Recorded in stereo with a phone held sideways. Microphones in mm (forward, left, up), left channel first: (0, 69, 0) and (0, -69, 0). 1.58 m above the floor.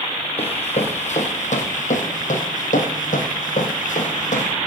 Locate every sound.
0.4 s running footsteps: 45° left (ahead or behind), 3 m; by 4.5 s 60° left (ahead or behind), 4 m